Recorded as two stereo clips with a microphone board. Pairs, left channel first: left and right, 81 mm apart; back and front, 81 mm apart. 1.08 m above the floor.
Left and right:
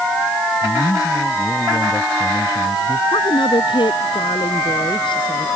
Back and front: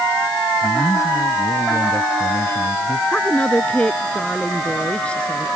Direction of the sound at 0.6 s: 130° left.